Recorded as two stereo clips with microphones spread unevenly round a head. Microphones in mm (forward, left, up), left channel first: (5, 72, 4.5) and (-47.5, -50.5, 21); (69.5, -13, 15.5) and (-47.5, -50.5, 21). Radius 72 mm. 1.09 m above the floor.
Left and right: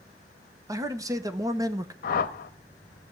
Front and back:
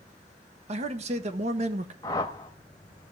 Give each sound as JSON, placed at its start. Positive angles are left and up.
{"t": 0.7, "sound": "a man speaking", "azimuth_deg": 180, "distance_m": 0.9}
{"t": 2.0, "sound": "a whoosh", "azimuth_deg": 90, "distance_m": 0.8}